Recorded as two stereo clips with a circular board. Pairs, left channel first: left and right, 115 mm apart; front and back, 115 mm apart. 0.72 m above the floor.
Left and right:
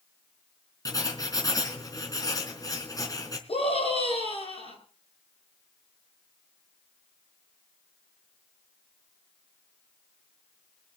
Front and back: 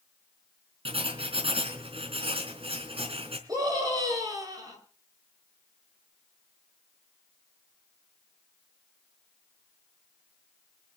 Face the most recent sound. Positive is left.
turn(degrees=120)